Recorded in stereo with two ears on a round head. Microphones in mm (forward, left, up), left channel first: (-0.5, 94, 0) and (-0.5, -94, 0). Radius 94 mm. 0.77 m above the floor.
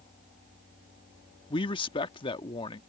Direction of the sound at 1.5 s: 25° left (ahead or behind).